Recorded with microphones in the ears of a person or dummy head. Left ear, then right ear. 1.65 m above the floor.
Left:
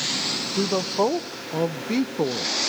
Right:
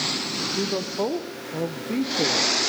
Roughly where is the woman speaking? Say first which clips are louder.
Left 6 dB; left.